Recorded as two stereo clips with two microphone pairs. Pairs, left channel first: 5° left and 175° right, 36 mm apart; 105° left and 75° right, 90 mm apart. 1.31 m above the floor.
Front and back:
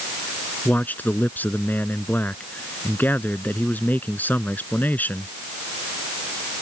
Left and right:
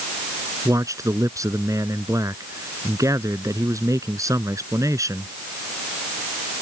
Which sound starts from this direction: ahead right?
A man speaking, at 0.7 s.